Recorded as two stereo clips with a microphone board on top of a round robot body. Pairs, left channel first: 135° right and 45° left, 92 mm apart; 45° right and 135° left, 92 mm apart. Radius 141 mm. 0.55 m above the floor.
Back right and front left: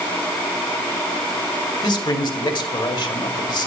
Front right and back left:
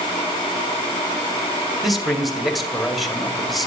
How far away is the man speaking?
About 2.0 m.